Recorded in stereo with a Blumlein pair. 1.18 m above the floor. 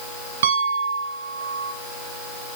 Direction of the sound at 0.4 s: 60° right.